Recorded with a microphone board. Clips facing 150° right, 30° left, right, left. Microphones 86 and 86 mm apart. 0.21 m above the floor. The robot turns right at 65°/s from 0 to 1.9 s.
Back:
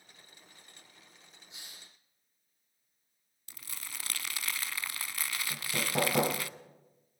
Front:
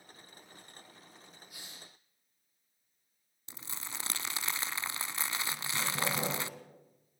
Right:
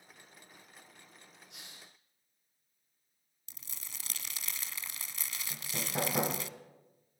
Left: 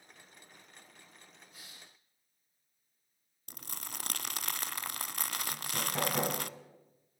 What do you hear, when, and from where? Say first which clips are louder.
1.5 s a hiss: even, right 2 dB; 85° right, 6 m; by 1.9 s 60° right, 6 m
3.5 s crumpling: front 3 dB, left 8 dB; 90° left, 0.6 m
5.5 s hammering: back 3 dB, right 2 dB; 170° right, 3.5 m